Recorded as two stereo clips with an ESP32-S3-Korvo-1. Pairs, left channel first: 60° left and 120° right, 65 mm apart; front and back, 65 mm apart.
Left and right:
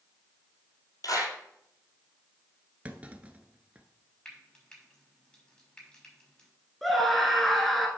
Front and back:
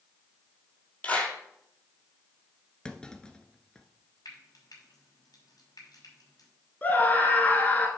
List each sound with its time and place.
1.0 s a clap: 60° left, 3 m
2.9 s a clunk: 70° right, 0.9 m
4.2 s frying: 15° right, 5 m
6.8 s a scream: 25° right, 1.2 m